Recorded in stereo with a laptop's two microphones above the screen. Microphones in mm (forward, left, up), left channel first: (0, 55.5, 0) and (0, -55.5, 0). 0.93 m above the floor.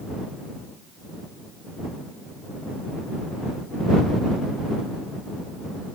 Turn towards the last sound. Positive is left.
No sound to turn to.